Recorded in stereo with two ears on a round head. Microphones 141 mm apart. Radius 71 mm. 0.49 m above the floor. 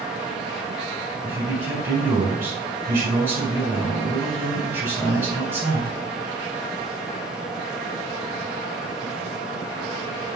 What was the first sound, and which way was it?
A man speaking, 15° right (ahead or behind).